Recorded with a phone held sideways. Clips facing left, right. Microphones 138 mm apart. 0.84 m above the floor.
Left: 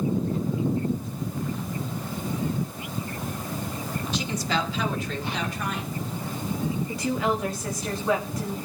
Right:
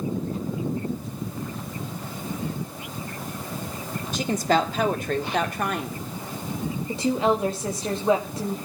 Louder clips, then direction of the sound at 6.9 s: Right 6 dB; 25° right (ahead or behind).